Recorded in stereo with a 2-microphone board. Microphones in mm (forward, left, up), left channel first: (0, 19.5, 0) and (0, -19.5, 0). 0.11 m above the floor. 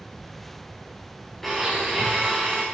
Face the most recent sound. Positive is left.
turn(degrees=5)  # may be behind; listen again after turning